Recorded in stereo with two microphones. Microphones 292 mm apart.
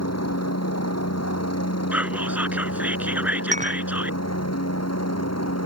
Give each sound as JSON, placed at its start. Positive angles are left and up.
{"t": 0.0, "sound": "a helicopter", "side_deg": 65}
{"t": 1.9, "sound": "whispering", "side_deg": -5}
{"t": 3.5, "sound": "dishes clattering", "side_deg": -25}